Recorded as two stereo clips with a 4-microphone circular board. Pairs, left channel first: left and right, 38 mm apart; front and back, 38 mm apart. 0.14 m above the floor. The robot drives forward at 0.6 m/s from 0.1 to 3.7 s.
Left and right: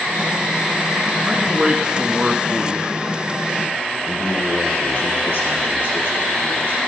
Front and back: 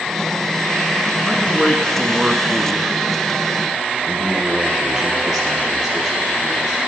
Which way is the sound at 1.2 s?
30° right.